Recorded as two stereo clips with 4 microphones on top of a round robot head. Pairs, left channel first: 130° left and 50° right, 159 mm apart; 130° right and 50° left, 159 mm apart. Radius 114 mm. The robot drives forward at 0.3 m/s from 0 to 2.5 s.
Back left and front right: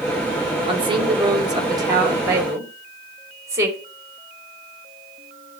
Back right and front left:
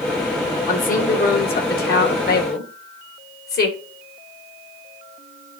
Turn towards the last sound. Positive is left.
turn(degrees=-120)